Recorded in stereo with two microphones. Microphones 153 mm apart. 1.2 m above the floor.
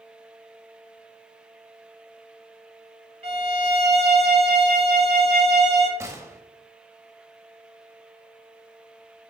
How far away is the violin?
About 1.4 m.